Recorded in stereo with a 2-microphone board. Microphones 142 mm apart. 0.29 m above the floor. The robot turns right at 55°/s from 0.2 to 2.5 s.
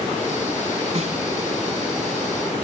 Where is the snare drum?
55° right (ahead or behind), 2 m; by 1.2 s 60° right (ahead or behind), 2 m.